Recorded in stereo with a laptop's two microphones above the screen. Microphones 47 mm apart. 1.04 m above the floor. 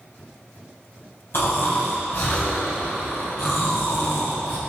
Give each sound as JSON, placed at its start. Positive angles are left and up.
{"t": 1.3, "sound": "snoring", "side_deg": 55, "distance_m": 3.0}